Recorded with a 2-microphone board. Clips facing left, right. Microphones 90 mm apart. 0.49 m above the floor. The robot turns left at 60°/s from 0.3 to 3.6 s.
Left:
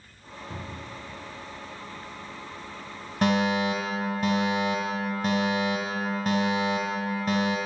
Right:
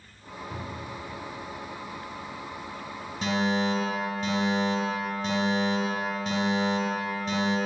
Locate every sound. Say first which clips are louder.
0.5 s a cupboard door: right 1 dB; 135° left, 2.5 m; by 1.1 s 105° left, 2.5 m
3.2 s a fire alarm: left 3 dB; 65° left (ahead or behind), 3.5 m; by 7.6 s 50° left (ahead or behind), 3.5 m